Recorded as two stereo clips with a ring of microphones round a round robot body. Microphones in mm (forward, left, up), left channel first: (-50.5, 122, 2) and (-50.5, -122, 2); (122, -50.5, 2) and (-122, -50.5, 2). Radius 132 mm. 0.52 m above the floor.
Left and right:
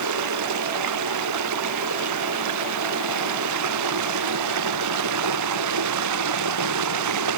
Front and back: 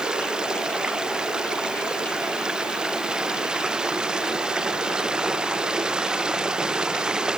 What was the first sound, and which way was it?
Running water, 95° right.